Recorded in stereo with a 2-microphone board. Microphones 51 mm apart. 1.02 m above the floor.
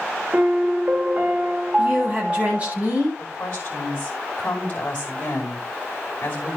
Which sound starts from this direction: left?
A woman speaking, at 3.2 s.